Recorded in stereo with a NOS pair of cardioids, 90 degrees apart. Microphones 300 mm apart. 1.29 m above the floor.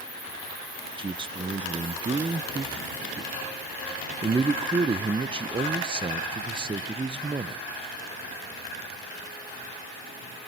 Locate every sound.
1.0 s a man speaking: 15° right, 0.6 m